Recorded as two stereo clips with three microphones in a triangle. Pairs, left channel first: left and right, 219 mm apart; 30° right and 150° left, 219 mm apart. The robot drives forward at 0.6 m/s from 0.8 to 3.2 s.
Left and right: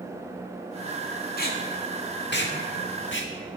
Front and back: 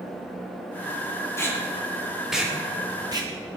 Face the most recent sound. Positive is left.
turn(degrees=85)